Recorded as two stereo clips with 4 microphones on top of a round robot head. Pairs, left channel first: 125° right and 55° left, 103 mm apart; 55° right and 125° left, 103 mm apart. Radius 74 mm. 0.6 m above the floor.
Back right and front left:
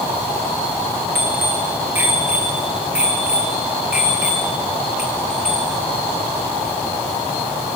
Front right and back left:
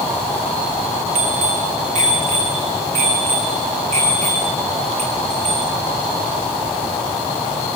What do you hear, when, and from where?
1.1 s a bicycle bell: 130° left, 6.5 m; by 5.7 s 140° left, 11 m